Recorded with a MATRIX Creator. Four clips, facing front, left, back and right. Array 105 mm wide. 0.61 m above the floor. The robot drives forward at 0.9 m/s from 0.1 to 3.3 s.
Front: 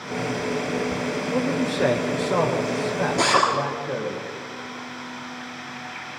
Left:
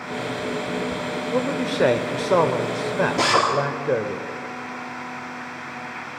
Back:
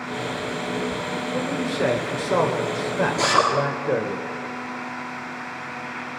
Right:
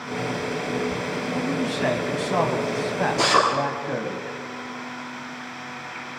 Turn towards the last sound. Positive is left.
turn(degrees=80)